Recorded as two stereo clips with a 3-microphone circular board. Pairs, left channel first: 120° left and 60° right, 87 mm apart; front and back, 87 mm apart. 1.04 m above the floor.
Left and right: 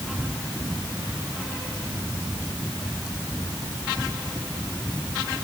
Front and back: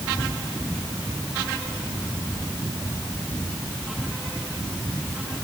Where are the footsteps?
I don't hear footsteps.